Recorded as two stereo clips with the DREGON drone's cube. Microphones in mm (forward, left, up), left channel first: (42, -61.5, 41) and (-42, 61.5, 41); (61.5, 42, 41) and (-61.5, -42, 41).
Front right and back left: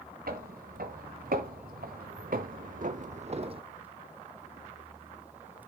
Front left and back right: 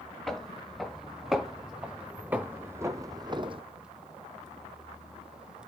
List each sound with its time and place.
0.3 s footsteps: 120° left, 2 m; by 3.6 s 170° left, 0.6 m